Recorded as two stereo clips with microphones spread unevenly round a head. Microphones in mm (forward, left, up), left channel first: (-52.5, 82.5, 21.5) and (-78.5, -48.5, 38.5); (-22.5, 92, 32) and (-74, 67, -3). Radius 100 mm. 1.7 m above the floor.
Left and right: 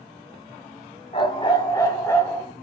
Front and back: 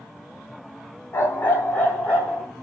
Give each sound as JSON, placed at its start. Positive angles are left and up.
{"t": 1.1, "sound": "a dog barking", "azimuth_deg": 15, "distance_m": 3.0}